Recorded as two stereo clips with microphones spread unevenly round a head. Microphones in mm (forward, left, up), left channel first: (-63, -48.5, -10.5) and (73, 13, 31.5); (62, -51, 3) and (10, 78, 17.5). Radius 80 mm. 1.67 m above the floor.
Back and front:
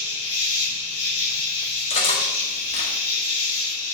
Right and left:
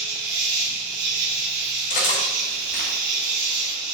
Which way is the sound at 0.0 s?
155° left.